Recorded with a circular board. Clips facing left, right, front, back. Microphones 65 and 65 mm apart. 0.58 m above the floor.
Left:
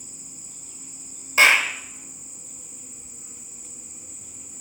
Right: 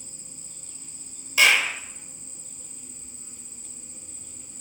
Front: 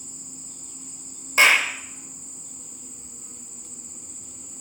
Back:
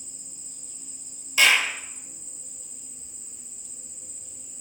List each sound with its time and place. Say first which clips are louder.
0.0 s an insect: left 2 dB, front 6 dB; 15° left, 1.3 m
1.4 s a clap: left 3 dB, front 3 dB; 40° left, 2.5 m